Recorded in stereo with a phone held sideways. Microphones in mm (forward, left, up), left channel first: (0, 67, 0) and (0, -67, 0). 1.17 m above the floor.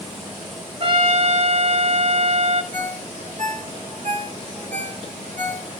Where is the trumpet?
45° right (ahead or behind), 2.5 m.